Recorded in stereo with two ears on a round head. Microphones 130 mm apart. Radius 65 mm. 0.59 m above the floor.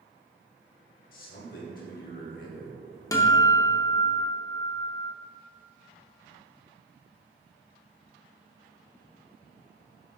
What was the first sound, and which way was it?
A man speaking, 65° left (ahead or behind).